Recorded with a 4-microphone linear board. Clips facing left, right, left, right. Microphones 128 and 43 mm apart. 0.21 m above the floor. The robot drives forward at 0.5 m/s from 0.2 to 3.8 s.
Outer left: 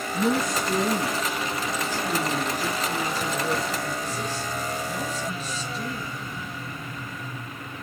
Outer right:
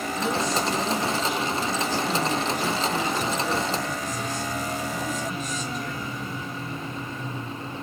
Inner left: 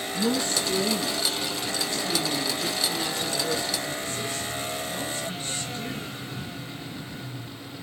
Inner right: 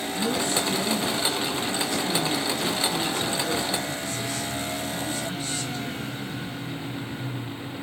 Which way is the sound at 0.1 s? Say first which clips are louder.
Outer left 3 dB, even; 50° left (ahead or behind).